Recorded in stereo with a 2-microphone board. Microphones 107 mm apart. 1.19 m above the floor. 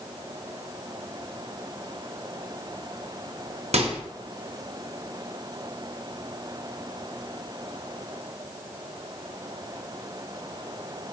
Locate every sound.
3.7 s a microwave: 80° right, 0.5 m